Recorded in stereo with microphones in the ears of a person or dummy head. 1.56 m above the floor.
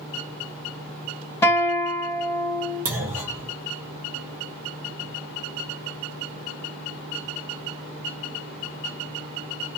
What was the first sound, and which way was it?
A guitar, 10° left (ahead or behind).